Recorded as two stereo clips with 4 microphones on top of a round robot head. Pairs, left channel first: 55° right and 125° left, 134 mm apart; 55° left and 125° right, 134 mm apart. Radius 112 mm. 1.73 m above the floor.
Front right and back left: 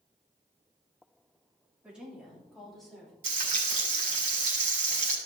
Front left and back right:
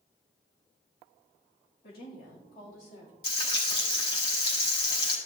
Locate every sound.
1.8 s a woman speaking: 45° left, 3.5 m; by 3.1 s 35° left, 5 m
3.2 s frying: 105° left, 4 m